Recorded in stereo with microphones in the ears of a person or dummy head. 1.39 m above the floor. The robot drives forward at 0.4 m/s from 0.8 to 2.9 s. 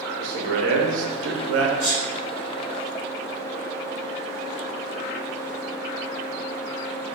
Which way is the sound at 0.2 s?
60° right (ahead or behind).